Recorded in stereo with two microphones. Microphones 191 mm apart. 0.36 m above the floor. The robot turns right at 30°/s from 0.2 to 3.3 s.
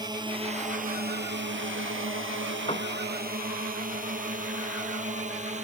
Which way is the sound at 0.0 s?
20° right (ahead or behind).